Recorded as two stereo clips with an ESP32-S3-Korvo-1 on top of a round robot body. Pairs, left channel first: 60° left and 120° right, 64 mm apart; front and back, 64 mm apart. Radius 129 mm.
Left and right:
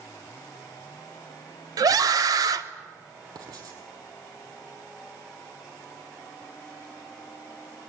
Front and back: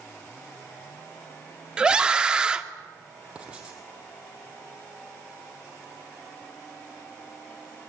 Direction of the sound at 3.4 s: 105° right.